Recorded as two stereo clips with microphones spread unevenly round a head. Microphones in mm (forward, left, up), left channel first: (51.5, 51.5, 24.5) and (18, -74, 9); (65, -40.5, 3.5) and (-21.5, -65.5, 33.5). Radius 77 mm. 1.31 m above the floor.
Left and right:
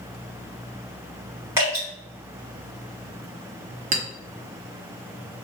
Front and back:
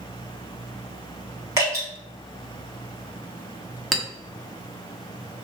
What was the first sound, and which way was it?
Dripping, straight behind.